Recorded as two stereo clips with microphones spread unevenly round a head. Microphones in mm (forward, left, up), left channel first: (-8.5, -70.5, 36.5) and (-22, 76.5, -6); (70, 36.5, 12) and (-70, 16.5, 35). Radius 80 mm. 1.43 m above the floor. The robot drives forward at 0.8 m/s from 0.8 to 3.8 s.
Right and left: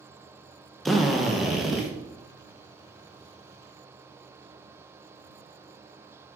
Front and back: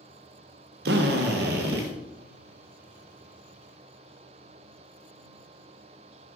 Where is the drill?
170° right, 0.9 m; by 1.9 s 175° right, 1.8 m.